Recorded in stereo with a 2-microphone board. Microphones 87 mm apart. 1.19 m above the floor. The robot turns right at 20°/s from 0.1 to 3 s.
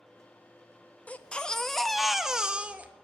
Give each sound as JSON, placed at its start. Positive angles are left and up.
{"t": 1.1, "sound": "a baby crying", "azimuth_deg": 160, "distance_m": 0.7}